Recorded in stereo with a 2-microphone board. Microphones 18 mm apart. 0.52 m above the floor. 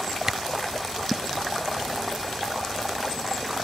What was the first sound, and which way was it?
A camera shutter, 25° right (ahead or behind).